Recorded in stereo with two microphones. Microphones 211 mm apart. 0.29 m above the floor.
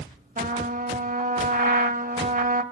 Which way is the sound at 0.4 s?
40° right (ahead or behind).